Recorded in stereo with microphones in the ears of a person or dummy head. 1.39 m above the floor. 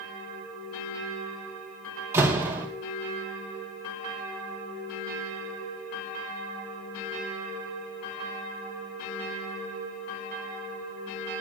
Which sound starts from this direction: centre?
A door slam, at 2.1 s.